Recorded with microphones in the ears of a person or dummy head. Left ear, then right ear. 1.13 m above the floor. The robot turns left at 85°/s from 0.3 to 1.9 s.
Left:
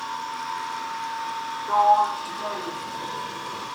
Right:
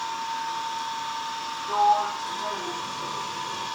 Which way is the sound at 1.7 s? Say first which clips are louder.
Left 3 dB; 55° left (ahead or behind).